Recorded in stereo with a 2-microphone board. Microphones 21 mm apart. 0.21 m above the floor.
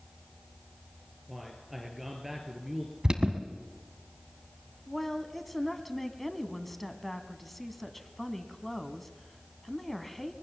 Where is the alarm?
35° right (ahead or behind), 1.3 m.